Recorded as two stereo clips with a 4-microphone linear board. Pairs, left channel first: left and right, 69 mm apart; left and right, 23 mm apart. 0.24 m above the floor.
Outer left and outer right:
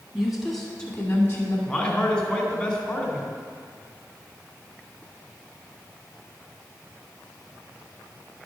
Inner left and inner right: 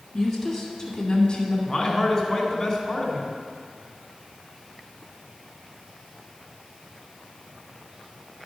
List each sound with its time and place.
0.1 s a woman speaking: 5° right (ahead or behind), 2.0 m; by 1.6 s 30° left (ahead or behind), 1.7 m
1.7 s a man speaking: 15° left (ahead or behind), 1.8 m